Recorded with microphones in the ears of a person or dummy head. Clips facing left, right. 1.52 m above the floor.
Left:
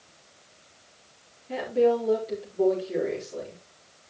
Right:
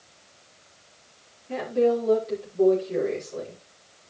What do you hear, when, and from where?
1.5 s a woman speaking: 5° left (ahead or behind), 4 m